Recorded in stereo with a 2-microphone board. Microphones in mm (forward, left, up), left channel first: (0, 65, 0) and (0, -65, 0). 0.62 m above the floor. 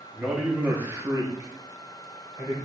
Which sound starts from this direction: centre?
A man speaking, at 0.1 s.